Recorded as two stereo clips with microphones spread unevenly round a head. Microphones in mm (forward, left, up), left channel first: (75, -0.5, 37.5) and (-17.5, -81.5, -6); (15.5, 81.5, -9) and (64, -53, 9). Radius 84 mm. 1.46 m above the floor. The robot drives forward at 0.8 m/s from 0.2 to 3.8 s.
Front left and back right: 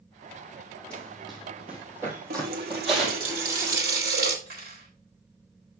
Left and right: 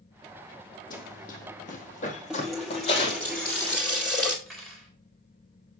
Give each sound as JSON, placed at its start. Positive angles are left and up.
{"t": 0.9, "sound": "running footsteps", "azimuth_deg": 105, "distance_m": 2.5}
{"t": 2.3, "sound": "a running tap", "azimuth_deg": -150, "distance_m": 1.2}
{"t": 4.5, "sound": "cutlery clinking", "azimuth_deg": -165, "distance_m": 4.0}